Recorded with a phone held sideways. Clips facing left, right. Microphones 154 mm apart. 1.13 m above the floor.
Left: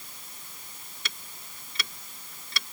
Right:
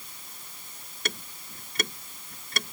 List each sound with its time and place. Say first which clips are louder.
1.1 s ticking: right 9 dB; 45° right (ahead or behind)